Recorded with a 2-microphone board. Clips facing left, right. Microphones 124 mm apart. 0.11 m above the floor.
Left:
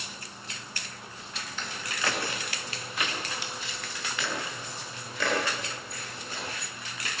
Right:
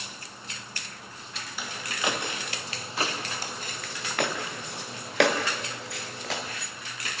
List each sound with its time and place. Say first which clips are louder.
1.6 s footsteps: right 2 dB; 10° right (ahead or behind), 4 m; by 6.4 s 85° right, 5 m